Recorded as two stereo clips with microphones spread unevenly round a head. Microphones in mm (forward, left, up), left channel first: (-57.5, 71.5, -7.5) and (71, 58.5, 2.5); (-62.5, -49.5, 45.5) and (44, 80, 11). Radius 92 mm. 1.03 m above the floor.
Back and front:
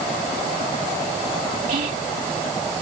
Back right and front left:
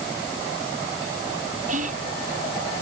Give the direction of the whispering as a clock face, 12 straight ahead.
12 o'clock.